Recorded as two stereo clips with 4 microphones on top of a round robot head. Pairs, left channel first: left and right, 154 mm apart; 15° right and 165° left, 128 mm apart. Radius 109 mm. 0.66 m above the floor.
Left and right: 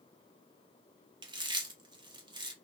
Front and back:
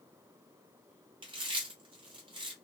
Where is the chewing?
145° right, 0.9 m.